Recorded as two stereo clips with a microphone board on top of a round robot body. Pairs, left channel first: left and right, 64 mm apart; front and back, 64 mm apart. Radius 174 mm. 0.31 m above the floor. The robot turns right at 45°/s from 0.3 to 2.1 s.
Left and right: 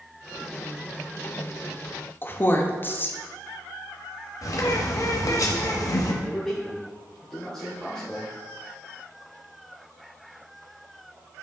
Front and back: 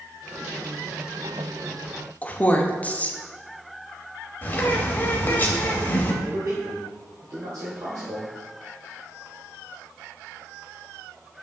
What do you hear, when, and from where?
2.2 s a woman speaking: 55° left, 1.0 m
4.4 s a bird: 60° left, 1.0 m
6.2 s a man speaking: 170° left, 1.6 m